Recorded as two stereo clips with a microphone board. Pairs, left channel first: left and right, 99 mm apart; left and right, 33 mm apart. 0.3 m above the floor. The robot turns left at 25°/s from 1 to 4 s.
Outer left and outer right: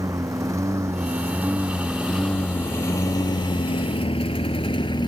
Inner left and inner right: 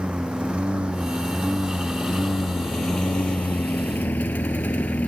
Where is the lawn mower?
35° right (ahead or behind); by 5.1 s 55° left (ahead or behind).